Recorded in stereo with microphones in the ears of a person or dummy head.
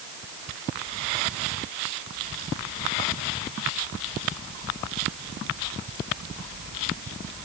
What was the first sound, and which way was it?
Only background noise.